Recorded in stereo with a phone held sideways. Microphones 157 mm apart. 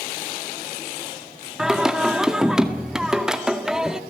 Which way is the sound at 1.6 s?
5° right (ahead or behind).